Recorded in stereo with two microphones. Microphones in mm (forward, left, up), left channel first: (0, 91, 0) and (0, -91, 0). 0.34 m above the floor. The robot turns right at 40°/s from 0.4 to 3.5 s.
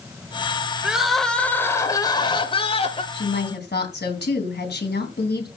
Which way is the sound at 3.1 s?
65° left (ahead or behind).